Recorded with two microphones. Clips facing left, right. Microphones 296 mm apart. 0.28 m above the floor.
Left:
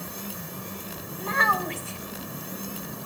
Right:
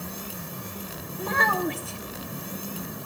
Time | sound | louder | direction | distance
1.2 | a child speaking | right 4 dB | 55° right (ahead or behind) | 1.2 m